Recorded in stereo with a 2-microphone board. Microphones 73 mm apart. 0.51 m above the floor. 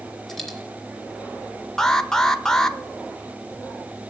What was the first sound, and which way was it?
A dropped coin, 5° left (ahead or behind).